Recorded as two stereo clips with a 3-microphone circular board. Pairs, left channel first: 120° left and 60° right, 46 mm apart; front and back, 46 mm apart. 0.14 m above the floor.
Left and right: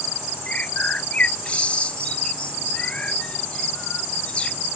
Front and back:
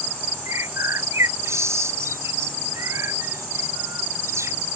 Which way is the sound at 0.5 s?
175° right.